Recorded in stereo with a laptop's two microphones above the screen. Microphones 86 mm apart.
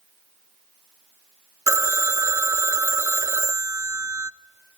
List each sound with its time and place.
1.7 s a phone ringing: 40° right (ahead or behind), 0.5 m